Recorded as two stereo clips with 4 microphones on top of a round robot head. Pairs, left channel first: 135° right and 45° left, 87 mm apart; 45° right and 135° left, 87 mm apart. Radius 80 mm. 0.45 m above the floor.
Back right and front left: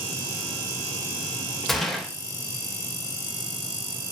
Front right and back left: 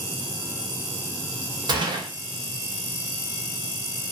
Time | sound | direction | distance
1.7 | a gunshot | 135° left | 2.5 m